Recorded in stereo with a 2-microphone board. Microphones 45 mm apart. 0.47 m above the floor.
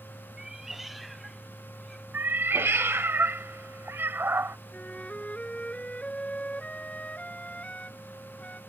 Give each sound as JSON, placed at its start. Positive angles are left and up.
{"t": 0.4, "sound": "a cat meowing", "side_deg": -15}
{"t": 2.1, "sound": "a cat meowing", "side_deg": -65}
{"t": 4.7, "sound": "a flute", "side_deg": 30}